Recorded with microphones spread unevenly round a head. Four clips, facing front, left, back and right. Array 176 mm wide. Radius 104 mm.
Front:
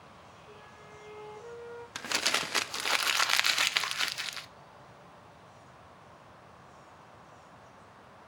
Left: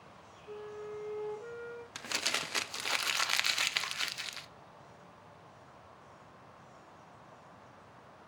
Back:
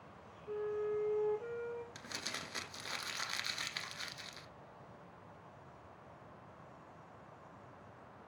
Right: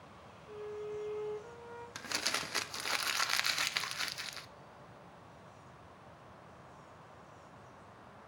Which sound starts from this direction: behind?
A flute, at 0.5 s.